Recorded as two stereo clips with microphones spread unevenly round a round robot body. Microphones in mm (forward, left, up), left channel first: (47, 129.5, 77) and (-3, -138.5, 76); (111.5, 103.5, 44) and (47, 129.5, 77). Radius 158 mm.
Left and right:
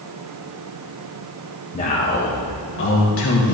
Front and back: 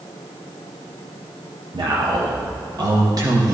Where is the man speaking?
140° left, 1.4 m; by 3.5 s 105° left, 1.8 m.